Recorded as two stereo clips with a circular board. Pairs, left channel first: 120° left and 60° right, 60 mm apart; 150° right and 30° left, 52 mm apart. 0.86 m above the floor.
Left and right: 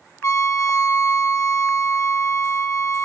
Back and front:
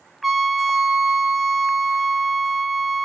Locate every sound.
0.2 s a trumpet: 120° left, 0.7 m